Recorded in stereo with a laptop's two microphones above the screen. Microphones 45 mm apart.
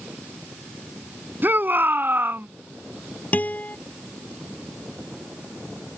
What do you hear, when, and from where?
1.4 s a shout: 50° right (ahead or behind)
3.3 s a guitar: 40° left (ahead or behind)